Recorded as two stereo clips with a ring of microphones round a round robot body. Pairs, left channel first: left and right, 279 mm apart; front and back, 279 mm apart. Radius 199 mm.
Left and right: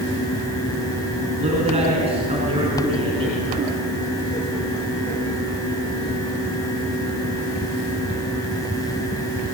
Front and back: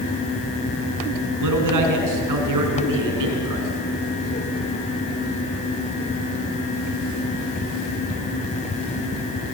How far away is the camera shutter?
I don't hear a camera shutter.